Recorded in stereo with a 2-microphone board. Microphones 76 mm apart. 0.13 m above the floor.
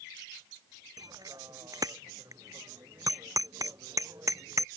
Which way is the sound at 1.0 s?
50° right (ahead or behind).